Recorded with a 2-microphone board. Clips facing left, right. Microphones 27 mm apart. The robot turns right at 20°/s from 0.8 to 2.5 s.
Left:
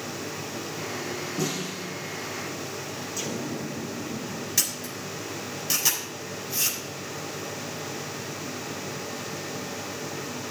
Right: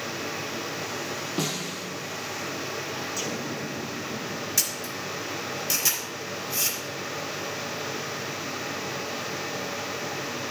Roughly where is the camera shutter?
Centre.